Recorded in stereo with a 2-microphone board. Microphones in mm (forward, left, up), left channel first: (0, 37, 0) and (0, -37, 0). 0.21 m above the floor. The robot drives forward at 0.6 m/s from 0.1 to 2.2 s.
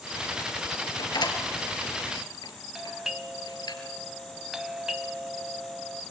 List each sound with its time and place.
1.0 s a door slam: 70° left (ahead or behind), 3 m
2.8 s a doorbell: 5° right (ahead or behind), 1.6 m